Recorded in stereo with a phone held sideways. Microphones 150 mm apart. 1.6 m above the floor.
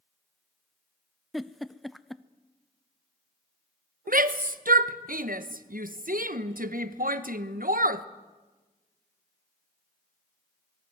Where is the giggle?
Centre (ahead or behind), 0.6 m.